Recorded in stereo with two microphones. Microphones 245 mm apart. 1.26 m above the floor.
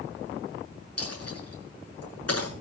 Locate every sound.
1.0 s a dropped coin: 75° left (ahead or behind), 8 m